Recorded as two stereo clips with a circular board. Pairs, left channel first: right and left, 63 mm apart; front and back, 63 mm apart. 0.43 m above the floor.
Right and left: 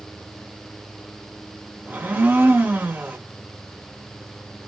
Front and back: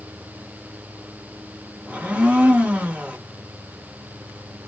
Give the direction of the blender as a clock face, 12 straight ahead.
8 o'clock.